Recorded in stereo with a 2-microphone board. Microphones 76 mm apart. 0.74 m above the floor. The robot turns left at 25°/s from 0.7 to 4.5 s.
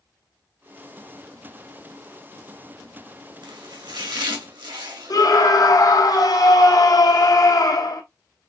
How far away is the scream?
About 1.3 m.